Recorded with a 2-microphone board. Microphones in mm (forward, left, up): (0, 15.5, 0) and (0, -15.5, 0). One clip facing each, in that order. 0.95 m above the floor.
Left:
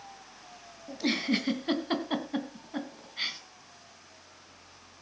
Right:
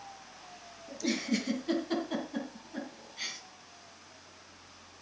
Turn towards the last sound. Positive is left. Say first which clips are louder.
# left 3 dB
turn(degrees=35)  # may be behind; listen again after turning